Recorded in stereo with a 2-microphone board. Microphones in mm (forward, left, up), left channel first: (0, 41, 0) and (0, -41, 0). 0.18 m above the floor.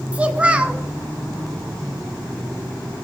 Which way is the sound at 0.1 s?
15° right (ahead or behind).